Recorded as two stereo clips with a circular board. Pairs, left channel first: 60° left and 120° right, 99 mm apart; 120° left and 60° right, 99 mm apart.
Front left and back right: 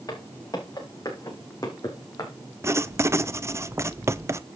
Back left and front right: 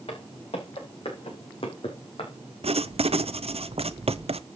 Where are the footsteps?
105° left, 7 m.